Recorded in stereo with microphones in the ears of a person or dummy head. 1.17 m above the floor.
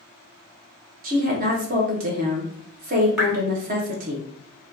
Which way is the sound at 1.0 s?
40° right (ahead or behind).